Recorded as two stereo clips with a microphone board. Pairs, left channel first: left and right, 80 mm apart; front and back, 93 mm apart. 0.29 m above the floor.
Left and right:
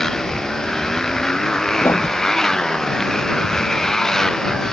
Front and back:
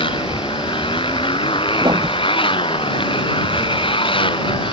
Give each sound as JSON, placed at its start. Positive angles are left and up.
{"t": 0.0, "sound": "a motorcycle", "azimuth_deg": 5}
{"t": 1.8, "sound": "writing", "azimuth_deg": 145}